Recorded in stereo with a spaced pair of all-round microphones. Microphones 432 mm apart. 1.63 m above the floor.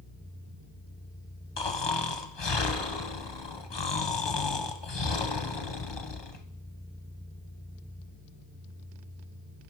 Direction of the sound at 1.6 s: 65° left (ahead or behind).